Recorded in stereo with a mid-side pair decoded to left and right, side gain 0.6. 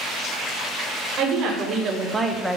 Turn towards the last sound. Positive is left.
turn(degrees=5)